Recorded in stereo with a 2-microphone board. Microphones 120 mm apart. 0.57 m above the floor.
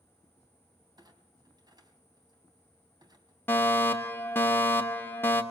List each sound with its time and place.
1.0 s a clunk: 40° right (ahead or behind), 3 m
3.5 s a fire alarm: 20° left (ahead or behind), 2.5 m